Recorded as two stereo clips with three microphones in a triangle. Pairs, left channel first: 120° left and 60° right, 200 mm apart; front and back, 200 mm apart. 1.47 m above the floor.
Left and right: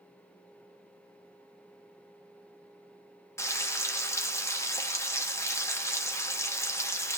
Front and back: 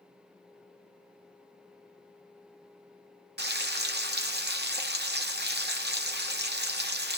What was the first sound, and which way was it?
Frying, 165° right.